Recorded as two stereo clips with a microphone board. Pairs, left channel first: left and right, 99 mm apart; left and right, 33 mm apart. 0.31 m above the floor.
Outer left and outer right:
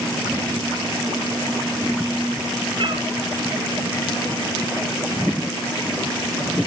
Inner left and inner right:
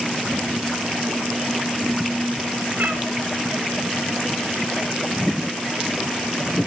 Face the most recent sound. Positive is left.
turn(degrees=-60)  # may be behind; listen again after turning